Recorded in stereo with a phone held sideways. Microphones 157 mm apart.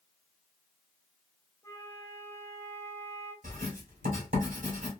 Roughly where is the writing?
Right.